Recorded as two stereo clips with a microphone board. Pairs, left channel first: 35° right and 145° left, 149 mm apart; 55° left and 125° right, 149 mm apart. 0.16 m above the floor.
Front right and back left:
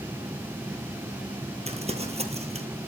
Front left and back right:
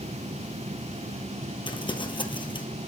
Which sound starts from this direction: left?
Crumpling, at 1.7 s.